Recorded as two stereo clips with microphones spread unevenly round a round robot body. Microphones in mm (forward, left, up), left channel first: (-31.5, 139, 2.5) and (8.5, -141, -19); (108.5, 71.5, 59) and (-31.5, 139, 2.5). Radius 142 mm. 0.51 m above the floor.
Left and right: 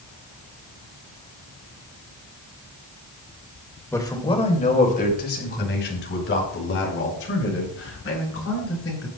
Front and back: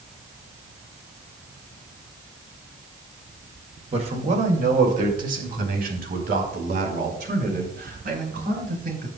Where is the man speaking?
Straight behind, 2 m; by 9.1 s 140° left, 9 m.